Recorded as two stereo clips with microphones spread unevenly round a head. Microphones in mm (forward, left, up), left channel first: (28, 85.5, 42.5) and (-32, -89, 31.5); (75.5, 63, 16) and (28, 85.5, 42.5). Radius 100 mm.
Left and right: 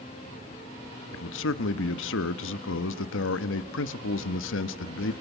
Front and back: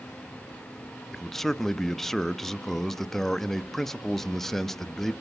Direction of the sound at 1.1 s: 55° left.